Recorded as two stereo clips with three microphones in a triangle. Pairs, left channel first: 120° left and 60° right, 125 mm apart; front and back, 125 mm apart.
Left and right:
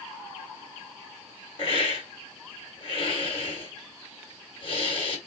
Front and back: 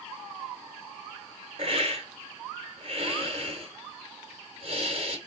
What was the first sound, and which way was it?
A hiss, 155° left.